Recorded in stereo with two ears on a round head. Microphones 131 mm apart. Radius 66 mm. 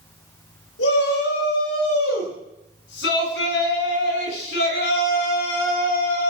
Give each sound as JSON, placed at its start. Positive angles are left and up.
{"t": 0.8, "sound": "a shout", "side_deg": 80, "distance_m": 8.0}